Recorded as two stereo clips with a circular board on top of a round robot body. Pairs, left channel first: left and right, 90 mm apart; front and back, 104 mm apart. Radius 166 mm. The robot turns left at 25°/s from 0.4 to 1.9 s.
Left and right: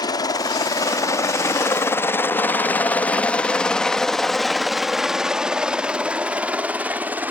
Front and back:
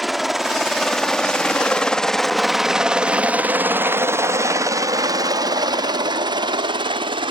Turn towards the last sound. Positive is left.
turn(degrees=-160)